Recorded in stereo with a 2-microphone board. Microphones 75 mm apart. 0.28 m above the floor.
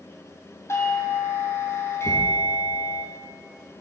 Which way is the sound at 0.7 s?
35° left (ahead or behind).